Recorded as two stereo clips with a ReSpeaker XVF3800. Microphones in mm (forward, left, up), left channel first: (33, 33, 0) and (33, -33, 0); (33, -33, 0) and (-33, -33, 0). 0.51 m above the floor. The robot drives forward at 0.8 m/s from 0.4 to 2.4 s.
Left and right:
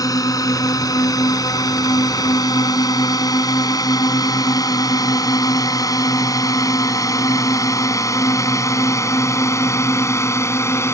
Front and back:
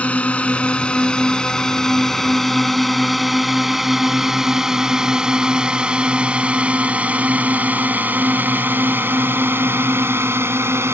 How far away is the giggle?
I don't hear a giggle.